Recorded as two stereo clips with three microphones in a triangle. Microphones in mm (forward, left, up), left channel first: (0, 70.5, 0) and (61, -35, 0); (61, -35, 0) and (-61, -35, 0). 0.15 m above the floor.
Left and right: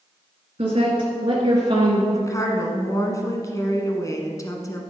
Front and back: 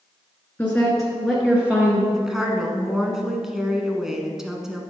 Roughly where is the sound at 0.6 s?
Right.